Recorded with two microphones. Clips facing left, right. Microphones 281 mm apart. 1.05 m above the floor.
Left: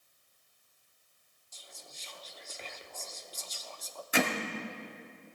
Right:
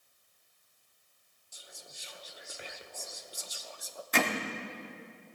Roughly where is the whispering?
Centre.